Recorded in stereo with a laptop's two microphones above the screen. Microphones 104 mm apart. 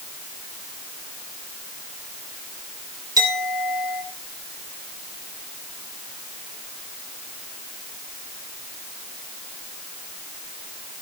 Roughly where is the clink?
Right.